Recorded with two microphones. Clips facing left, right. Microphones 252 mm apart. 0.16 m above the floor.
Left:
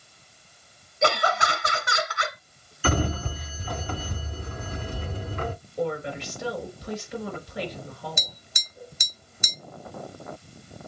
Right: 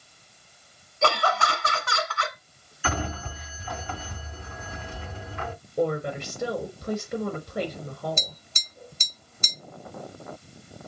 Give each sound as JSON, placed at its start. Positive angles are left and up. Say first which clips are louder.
{"t": 1.0, "sound": "laughter", "louder": "left 1 dB", "side_deg": 15, "distance_m": 1.2}
{"t": 2.8, "sound": "a sliding door", "louder": "left 5 dB", "side_deg": 40, "distance_m": 0.6}
{"t": 5.8, "sound": "a woman speaking", "louder": "right 3 dB", "side_deg": -55, "distance_m": 3.0}
{"t": 8.2, "sound": "tapping", "louder": "right 3 dB", "side_deg": 15, "distance_m": 1.0}